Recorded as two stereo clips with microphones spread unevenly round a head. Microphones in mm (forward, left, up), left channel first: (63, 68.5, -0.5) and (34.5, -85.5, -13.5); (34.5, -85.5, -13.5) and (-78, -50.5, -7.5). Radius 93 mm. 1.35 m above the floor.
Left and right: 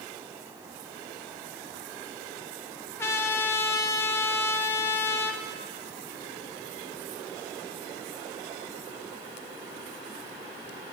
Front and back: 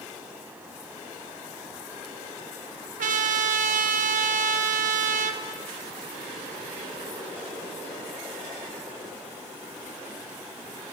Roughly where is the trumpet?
Behind.